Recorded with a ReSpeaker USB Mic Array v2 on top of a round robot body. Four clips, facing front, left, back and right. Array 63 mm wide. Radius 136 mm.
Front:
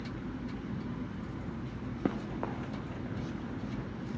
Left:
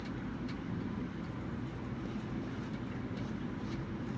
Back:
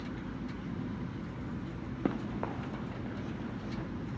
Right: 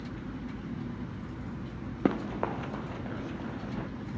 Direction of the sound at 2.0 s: 90° right.